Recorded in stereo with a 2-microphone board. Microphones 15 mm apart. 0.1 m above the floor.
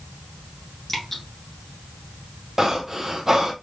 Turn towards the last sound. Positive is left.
turn(degrees=-25)  # may be behind; listen again after turning